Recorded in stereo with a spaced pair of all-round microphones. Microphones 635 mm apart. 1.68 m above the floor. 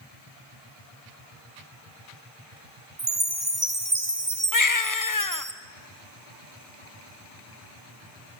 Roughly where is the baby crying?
Left.